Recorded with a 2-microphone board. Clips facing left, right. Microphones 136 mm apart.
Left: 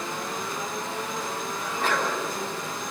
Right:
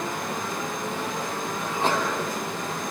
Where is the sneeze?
25° right (ahead or behind), 10 m.